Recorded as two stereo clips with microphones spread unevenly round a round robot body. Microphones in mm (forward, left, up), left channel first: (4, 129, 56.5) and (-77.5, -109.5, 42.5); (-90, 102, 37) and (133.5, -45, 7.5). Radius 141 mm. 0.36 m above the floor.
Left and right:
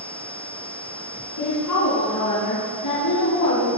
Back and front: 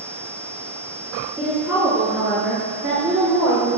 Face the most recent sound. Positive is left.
turn(degrees=45)